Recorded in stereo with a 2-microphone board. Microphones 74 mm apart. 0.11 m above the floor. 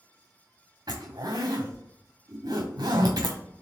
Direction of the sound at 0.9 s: 65° right (ahead or behind).